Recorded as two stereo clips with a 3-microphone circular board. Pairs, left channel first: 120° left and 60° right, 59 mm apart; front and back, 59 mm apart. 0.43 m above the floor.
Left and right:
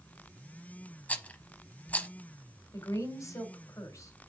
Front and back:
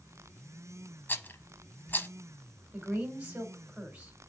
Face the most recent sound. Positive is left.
turn(degrees=115)